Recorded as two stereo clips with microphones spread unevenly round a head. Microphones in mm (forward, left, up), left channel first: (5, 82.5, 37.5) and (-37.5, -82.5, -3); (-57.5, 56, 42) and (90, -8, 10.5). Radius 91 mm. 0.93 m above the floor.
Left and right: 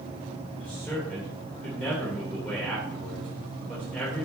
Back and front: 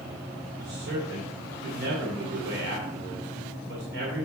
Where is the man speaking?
10° right, 2.5 m.